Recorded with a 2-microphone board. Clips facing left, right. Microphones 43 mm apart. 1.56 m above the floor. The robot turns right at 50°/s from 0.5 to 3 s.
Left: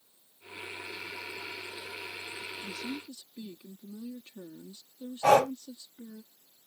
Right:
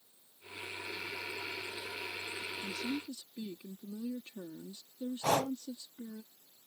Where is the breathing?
60° left (ahead or behind).